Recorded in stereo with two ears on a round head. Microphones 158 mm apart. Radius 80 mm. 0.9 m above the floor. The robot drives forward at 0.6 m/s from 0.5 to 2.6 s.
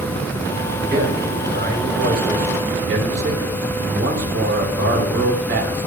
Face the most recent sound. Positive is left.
turn(degrees=-65)  # may be behind; listen again after turning